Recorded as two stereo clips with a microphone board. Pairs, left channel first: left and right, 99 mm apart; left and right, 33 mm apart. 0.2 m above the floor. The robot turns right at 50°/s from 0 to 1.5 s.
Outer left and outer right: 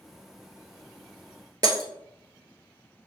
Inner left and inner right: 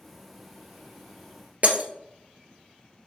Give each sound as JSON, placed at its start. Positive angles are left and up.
{"t": 1.6, "sound": "breaking glass", "side_deg": -45, "distance_m": 0.9}